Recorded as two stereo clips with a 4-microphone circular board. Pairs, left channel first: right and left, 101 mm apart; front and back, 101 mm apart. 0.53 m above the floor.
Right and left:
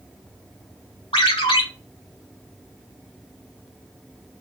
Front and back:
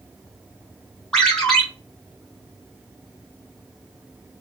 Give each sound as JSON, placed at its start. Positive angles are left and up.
{"t": 1.1, "sound": "a ringtone", "azimuth_deg": -80, "distance_m": 1.4}